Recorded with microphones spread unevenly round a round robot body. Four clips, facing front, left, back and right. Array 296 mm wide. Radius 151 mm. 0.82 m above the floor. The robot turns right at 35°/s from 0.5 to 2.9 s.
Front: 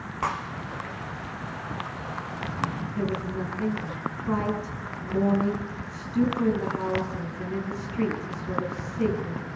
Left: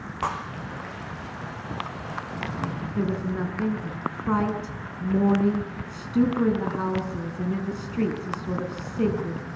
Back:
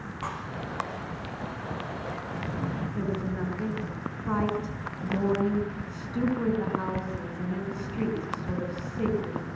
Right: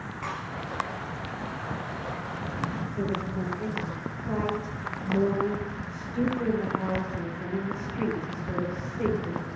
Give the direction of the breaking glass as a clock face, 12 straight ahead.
11 o'clock.